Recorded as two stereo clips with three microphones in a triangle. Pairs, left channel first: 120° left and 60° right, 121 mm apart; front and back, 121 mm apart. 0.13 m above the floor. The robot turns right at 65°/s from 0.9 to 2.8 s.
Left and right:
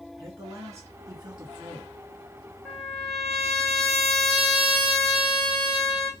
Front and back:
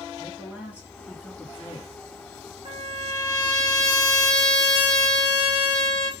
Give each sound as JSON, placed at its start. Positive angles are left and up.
{"t": 0.2, "sound": "a man speaking", "azimuth_deg": -110, "distance_m": 1.9}
{"t": 2.6, "sound": "a trumpet", "azimuth_deg": -160, "distance_m": 2.5}